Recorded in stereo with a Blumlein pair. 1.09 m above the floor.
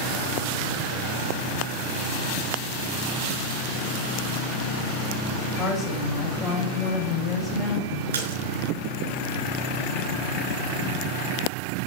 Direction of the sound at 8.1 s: 60° right.